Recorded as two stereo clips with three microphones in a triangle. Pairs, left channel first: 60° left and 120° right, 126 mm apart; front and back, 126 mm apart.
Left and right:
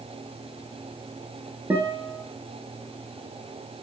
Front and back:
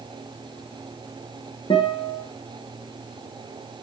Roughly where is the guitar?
Ahead right.